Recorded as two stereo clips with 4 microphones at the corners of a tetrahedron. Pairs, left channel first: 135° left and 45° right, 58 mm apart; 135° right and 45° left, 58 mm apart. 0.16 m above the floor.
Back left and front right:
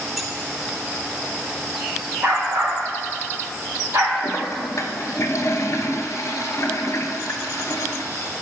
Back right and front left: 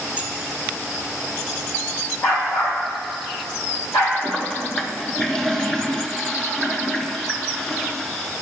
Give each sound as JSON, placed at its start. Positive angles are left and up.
{"t": 0.2, "sound": "keys jangling", "azimuth_deg": 40, "distance_m": 0.7}
{"t": 2.2, "sound": "a dog barking", "azimuth_deg": -105, "distance_m": 3.0}
{"t": 4.2, "sound": "a toilet flushing", "azimuth_deg": 145, "distance_m": 0.8}